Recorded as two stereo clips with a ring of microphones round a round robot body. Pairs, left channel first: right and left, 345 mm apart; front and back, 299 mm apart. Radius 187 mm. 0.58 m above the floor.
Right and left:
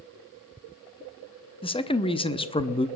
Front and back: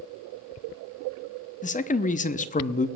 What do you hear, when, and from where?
1.6 s a man speaking: 30° right, 0.8 m